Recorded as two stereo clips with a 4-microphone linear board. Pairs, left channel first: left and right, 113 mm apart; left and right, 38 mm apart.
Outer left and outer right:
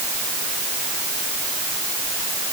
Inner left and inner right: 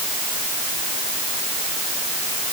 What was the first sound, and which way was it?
Only background noise.